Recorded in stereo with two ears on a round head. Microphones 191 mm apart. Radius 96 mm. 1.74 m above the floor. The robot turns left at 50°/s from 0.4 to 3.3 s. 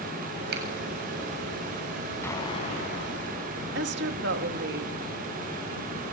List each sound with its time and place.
0.5 s a finger snap: 55° right (ahead or behind), 7.5 m; by 0.6 s 50° right (ahead or behind), 7.5 m
2.2 s an explosion: 170° left, 6.5 m; by 3.6 s 115° left, 6.5 m
3.8 s a woman speaking: 55° right (ahead or behind), 2.5 m